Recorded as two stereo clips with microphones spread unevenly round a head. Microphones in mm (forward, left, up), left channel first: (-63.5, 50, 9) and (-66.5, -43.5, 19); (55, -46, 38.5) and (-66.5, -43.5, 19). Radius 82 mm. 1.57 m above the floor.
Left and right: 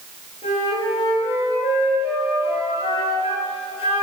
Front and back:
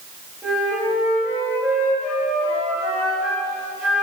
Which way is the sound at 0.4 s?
90° left.